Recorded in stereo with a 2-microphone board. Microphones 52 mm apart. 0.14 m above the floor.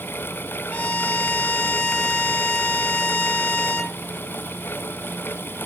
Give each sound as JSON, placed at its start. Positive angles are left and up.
{"t": 0.7, "sound": "a violin", "side_deg": 30, "distance_m": 4.0}